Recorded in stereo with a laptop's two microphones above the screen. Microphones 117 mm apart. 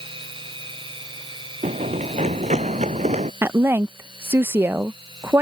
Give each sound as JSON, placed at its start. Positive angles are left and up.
{"t": 0.0, "sound": "a machine running", "side_deg": -45}
{"t": 1.6, "sound": "running footsteps", "side_deg": -80}
{"t": 3.4, "sound": "a woman speaking", "side_deg": -20}